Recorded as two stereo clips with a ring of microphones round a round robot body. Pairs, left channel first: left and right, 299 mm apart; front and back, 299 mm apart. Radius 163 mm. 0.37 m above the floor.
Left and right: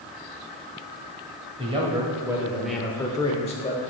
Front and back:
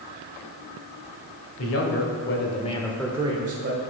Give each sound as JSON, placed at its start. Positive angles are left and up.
{"t": 1.6, "sound": "a man speaking", "azimuth_deg": -20, "distance_m": 1.6}